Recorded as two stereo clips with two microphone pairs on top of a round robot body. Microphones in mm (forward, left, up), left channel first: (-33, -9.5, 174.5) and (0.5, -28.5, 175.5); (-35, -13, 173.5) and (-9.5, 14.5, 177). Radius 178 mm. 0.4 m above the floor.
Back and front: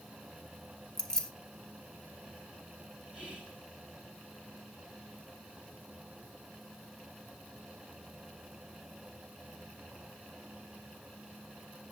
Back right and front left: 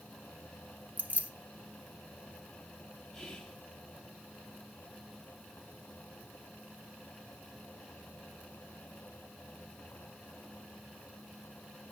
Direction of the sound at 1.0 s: 80° left.